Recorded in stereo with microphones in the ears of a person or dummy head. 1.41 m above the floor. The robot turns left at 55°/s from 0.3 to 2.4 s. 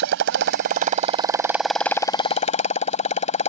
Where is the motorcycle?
105° right; by 3.5 s 140° left.